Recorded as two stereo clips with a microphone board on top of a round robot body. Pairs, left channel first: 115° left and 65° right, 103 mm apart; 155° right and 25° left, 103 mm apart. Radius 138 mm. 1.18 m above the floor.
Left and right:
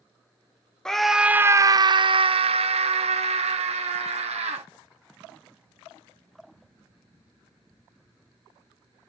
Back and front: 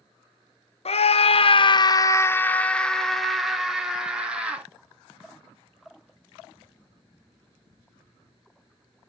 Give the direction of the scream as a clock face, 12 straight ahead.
5 o'clock.